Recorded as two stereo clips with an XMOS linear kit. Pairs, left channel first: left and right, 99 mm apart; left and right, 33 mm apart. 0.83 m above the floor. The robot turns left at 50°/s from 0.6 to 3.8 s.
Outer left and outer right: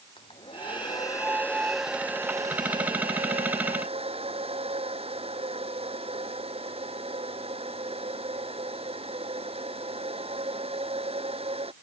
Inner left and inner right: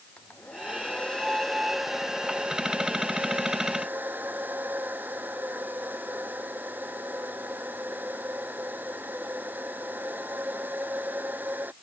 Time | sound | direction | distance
0.2 | a hair dryer | 60° left | ?